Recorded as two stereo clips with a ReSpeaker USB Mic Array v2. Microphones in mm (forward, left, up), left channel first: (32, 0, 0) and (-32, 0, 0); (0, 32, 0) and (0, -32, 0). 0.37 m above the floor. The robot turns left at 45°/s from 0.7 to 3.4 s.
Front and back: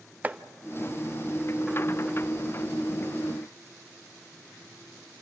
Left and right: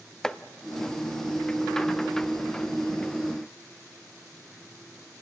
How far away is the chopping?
About 0.6 m.